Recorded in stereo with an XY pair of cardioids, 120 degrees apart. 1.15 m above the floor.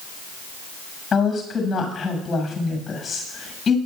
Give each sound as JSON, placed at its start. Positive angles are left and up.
{"t": 1.1, "sound": "a woman speaking", "azimuth_deg": 30, "distance_m": 6.5}